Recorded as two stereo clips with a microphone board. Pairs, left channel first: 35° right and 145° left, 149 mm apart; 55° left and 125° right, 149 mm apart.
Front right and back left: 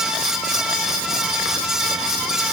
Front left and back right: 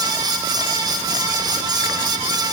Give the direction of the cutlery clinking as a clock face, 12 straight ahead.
No cutlery clinking in this recording.